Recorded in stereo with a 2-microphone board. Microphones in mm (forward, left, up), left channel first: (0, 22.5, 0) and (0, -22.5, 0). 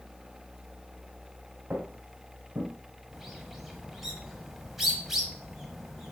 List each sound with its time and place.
1.7 s footsteps: 40° right (ahead or behind), 1.3 m; by 2.7 s 55° right (ahead or behind), 2.5 m
3.1 s a bird: 5° right (ahead or behind), 1.3 m